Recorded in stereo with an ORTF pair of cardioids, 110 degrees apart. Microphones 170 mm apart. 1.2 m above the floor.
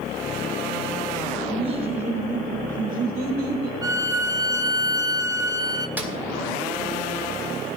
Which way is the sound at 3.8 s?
20° right.